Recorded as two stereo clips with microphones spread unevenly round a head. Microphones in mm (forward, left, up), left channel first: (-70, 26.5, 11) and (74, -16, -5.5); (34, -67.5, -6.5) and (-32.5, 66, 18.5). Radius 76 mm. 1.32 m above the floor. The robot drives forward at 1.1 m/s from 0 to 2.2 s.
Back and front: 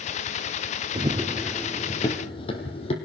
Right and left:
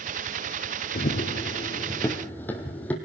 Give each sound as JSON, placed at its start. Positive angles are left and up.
{"t": 0.9, "sound": "running footsteps", "azimuth_deg": -55, "distance_m": 1.6}